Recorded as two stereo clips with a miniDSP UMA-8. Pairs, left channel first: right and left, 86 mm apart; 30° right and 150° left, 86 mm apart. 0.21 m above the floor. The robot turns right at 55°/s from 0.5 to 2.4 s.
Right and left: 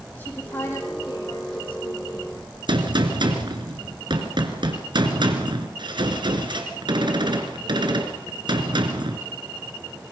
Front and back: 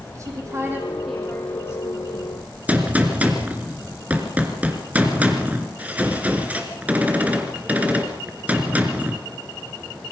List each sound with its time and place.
0.1 s a woman speaking: 155° right, 7 m; by 2.5 s 55° right, 7 m
2.7 s a gunshot: 80° left, 2.5 m